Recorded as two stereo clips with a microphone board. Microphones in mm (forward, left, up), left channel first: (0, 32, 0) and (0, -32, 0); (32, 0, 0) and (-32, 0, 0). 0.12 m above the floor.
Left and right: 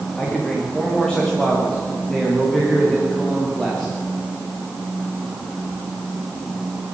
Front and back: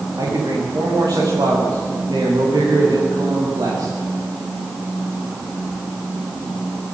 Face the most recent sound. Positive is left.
turn(degrees=175)